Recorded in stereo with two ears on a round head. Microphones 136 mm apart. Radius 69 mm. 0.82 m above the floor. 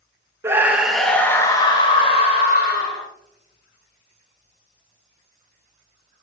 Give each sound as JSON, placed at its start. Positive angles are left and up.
{"t": 0.4, "sound": "a scream", "side_deg": -15, "distance_m": 1.1}